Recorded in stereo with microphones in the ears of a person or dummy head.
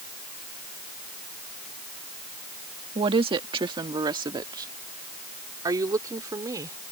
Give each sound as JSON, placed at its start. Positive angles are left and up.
{"t": 3.0, "sound": "a woman speaking", "side_deg": -30}